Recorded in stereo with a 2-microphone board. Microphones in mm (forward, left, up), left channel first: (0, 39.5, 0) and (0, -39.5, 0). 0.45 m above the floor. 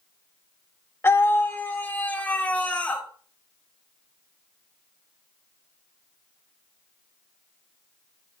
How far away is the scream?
About 1.4 m.